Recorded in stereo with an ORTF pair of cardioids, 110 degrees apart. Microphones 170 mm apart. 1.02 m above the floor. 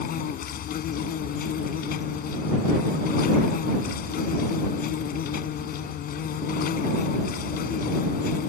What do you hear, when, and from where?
0.0 s an insect: 60° left